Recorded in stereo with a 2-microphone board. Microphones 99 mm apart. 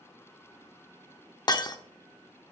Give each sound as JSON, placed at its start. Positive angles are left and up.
{"t": 1.5, "sound": "breaking glass", "side_deg": 40, "distance_m": 0.6}